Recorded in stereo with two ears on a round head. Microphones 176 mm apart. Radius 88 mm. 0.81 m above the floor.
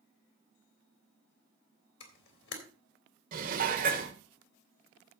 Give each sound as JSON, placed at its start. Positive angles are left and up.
{"t": 2.0, "sound": "a camera shutter", "side_deg": 65, "distance_m": 3.0}
{"t": 3.3, "sound": "dishes clattering", "side_deg": -45, "distance_m": 1.9}